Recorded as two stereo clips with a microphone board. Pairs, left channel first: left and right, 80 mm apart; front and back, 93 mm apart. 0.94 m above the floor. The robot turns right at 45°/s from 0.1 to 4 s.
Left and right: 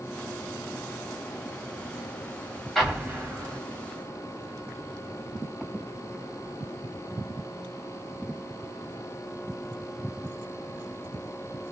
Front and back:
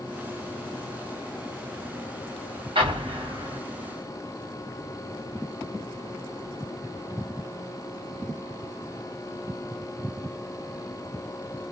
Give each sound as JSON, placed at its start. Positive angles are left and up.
{"t": 2.8, "sound": "an explosion", "azimuth_deg": 180, "distance_m": 1.3}